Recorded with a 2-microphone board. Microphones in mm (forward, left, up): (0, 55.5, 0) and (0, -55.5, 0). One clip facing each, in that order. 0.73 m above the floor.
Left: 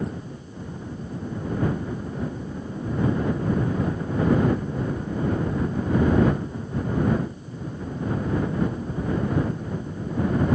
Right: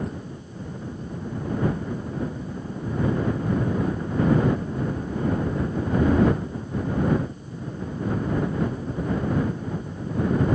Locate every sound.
Only background noise.